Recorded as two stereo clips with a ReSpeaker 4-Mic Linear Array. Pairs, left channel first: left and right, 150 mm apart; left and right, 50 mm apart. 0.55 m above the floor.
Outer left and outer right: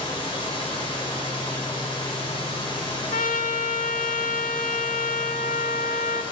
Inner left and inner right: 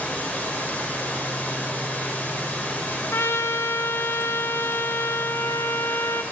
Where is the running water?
35° left (ahead or behind), 2 m.